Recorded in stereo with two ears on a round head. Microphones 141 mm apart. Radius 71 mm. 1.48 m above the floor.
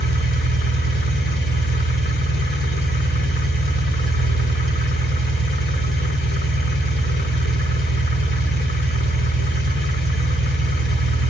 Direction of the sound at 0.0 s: 75° left (ahead or behind).